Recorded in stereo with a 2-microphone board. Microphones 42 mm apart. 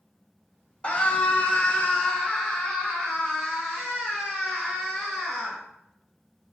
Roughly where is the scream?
Left.